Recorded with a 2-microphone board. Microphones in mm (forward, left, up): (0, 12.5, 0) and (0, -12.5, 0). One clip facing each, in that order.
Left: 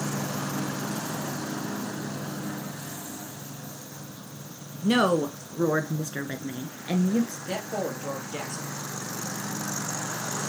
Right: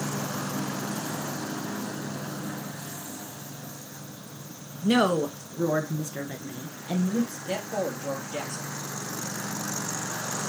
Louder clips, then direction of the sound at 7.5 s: Right 1 dB; centre (ahead or behind).